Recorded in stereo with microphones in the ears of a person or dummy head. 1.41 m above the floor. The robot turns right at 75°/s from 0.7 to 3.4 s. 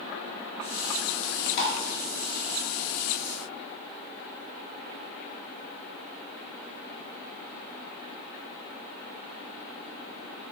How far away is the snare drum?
I don't hear a snare drum.